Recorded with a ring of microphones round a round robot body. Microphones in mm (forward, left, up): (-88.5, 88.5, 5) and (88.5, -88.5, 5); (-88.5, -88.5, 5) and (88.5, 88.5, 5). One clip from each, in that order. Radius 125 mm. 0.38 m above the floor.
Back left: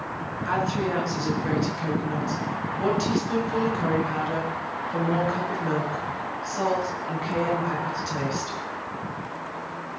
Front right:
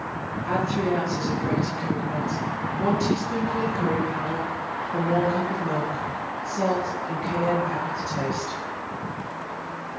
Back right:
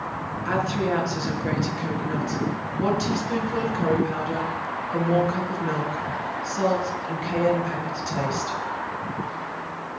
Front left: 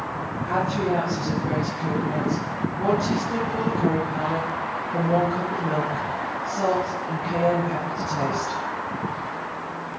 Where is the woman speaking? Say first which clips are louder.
Front right 1 dB, even; 175° right, 5.5 m.